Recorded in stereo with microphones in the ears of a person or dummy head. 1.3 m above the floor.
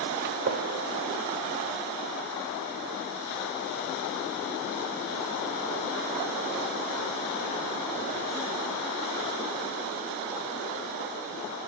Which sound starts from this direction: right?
A gunshot, at 0.2 s.